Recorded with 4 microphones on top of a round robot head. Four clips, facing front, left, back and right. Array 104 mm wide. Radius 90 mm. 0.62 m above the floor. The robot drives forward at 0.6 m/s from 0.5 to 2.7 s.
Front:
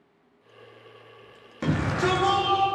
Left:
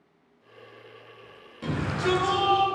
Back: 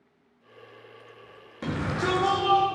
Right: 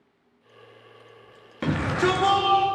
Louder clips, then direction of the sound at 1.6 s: Right 4 dB, front 3 dB; 70° right.